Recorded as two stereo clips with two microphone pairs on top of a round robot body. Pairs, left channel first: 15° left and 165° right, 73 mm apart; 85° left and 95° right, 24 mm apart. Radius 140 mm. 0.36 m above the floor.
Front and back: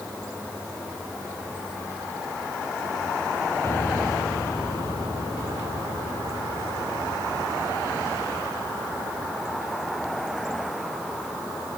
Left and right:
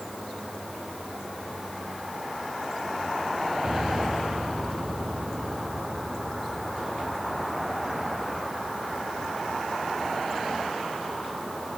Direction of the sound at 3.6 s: 45° right.